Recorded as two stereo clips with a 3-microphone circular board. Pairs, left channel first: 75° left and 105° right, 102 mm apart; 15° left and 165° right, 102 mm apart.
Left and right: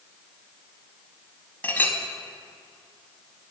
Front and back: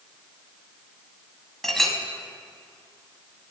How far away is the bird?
I don't hear a bird.